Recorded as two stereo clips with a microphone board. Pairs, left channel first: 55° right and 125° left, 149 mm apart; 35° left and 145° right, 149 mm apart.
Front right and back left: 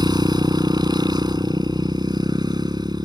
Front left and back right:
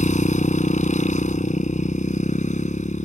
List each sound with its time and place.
0.0 s a motorcycle: 65° left